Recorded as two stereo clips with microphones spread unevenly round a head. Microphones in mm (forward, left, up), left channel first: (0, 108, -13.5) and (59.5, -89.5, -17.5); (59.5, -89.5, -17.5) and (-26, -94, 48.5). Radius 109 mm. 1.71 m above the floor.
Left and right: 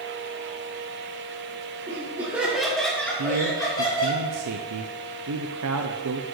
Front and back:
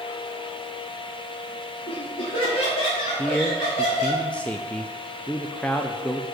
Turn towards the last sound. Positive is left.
turn(degrees=-85)